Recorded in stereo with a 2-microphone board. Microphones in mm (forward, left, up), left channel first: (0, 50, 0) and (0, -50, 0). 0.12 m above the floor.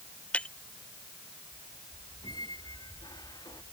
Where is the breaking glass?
15° left (ahead or behind).